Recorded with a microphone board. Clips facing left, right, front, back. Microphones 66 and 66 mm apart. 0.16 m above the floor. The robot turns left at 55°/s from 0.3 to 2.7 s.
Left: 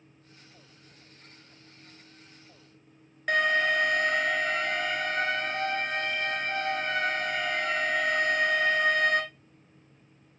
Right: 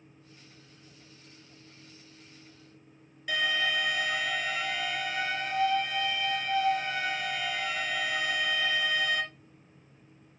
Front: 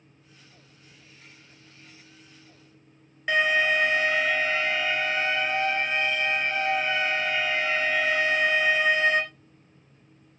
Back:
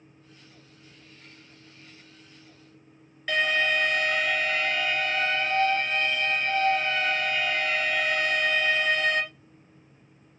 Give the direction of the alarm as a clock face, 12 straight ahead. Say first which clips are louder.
Left 5 dB, front 2 dB; 10 o'clock.